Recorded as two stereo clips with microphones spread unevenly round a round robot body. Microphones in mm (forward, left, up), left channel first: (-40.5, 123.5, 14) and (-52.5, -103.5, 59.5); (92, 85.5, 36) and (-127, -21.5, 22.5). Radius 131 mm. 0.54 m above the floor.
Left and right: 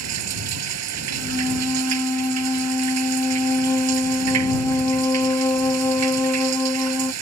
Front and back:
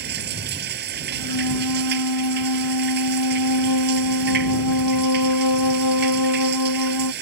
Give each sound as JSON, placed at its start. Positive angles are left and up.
{"t": 0.0, "sound": "running water", "azimuth_deg": -100}
{"t": 1.1, "sound": "a flute", "azimuth_deg": 5}